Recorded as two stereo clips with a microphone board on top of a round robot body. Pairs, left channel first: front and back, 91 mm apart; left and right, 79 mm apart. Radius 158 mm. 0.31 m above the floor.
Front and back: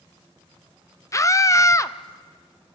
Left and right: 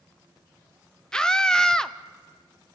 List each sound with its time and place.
1.1 s a scream: 15° left, 1.0 m